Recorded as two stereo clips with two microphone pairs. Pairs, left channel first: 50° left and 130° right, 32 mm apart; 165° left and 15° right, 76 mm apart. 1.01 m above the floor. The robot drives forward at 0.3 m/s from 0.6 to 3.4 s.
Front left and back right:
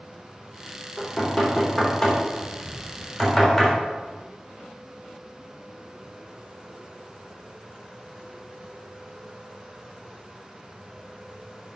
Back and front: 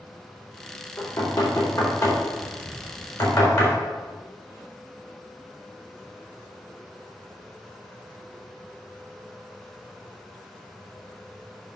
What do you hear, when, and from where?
1.0 s knocking: 130° left, 3 m; by 3.7 s 140° left, 3.5 m